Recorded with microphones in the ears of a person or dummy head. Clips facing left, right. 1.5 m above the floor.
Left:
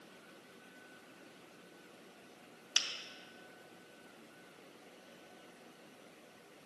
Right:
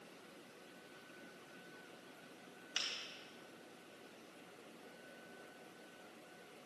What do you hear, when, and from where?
2.8 s a finger snap: 65° left (ahead or behind), 0.9 m